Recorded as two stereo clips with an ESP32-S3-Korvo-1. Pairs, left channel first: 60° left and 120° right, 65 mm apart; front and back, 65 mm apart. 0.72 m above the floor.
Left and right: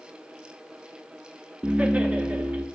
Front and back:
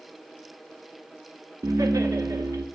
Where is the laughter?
170° left, 0.9 m.